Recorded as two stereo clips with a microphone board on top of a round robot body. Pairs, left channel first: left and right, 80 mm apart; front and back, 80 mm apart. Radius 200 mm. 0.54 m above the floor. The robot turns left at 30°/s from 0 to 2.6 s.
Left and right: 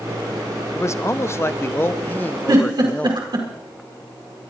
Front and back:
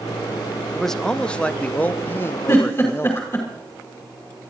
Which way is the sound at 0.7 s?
85° left.